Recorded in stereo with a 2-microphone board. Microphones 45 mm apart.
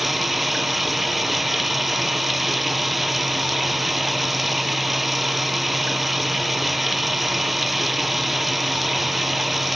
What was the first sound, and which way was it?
Running water, 5° right (ahead or behind).